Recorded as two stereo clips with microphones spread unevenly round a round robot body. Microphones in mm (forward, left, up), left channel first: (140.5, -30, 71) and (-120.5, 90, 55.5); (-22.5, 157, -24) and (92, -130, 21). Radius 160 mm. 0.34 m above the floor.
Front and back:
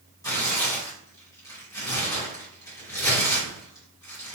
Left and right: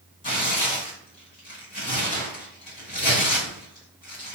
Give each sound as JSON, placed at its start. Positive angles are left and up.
{"t": 0.2, "sound": "tearing paper", "azimuth_deg": 50, "distance_m": 1.8}